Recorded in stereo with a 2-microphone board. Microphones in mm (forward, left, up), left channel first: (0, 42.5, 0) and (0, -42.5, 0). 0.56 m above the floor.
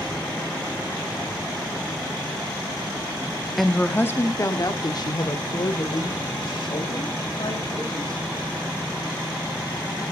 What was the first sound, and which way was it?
A woman speaking, centre (ahead or behind).